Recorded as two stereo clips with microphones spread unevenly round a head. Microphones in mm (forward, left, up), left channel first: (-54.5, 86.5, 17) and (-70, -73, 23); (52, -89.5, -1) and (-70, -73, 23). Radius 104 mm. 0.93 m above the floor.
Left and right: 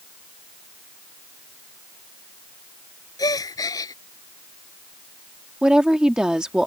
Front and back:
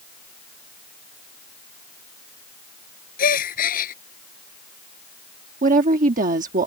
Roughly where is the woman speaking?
Behind.